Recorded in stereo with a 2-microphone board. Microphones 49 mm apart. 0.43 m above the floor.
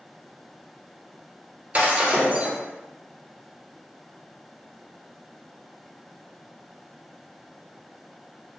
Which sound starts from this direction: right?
Breaking glass, at 1.7 s.